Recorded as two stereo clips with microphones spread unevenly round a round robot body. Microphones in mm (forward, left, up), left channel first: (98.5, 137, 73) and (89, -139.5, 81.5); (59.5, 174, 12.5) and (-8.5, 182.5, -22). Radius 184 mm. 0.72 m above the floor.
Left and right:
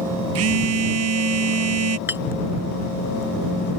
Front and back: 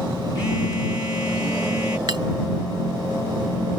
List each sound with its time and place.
0.3 s a phone buzzing: 55° right
2.1 s a clink: 175° right